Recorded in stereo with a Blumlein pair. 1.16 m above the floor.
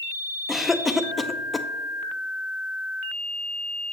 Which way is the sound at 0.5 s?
10° left.